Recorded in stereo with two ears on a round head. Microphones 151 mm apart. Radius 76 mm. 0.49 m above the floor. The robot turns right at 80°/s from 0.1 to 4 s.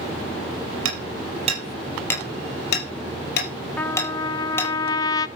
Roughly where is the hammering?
Right.